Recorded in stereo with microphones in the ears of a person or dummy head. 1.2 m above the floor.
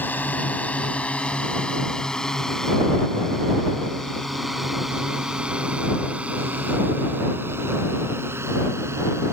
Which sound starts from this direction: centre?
A drone, at 0.0 s.